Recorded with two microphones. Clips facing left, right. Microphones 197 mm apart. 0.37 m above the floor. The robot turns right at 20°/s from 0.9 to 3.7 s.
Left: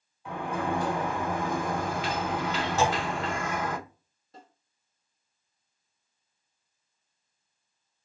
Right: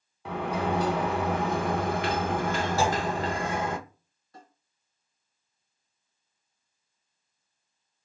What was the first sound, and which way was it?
A sliding door, 85° right.